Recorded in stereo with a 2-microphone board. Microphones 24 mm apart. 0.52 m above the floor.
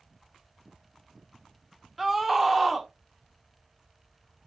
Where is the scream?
10° right (ahead or behind), 1.3 m.